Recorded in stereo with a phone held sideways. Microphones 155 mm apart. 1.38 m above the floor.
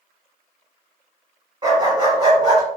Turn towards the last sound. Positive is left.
turn(degrees=-30)  # may be behind; listen again after turning